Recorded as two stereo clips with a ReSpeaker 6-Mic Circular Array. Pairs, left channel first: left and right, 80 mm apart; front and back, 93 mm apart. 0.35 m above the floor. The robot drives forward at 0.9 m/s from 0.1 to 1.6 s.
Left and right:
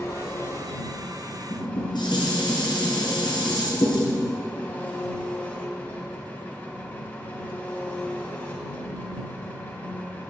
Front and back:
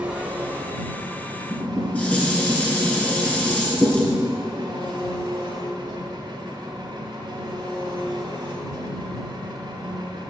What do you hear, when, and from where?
0.0 s an engine running: 110° left, 1.4 m; by 10.3 s 150° left, 2 m
1.5 s dishes clattering: 70° left, 3.5 m; by 4.2 s 75° left, 3.5 m